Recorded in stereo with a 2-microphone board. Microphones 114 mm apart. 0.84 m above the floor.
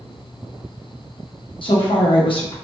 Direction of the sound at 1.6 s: 50° left (ahead or behind).